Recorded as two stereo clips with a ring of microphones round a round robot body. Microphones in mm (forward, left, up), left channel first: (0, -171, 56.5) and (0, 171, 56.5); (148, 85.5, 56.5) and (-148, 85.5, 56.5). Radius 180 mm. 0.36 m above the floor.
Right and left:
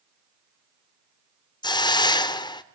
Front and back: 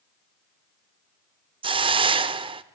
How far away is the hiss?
About 0.5 m.